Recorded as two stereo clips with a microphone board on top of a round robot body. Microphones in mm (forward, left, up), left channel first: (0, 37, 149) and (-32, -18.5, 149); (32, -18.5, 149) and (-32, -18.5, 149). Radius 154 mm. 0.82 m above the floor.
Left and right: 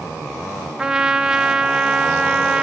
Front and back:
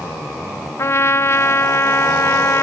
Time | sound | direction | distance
0.8 | a trumpet | 45° right | 0.5 m